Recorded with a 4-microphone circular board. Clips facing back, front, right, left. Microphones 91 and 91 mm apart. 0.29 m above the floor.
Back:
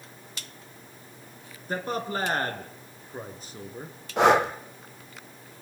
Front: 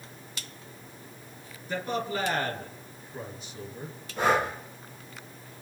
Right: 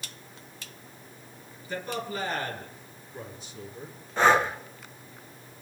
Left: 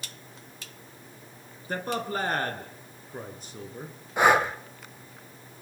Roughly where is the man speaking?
Behind left.